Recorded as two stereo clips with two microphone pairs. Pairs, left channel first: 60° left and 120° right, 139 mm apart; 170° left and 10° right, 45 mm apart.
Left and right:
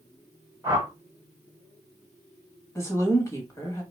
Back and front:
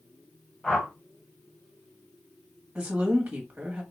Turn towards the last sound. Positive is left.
turn(degrees=15)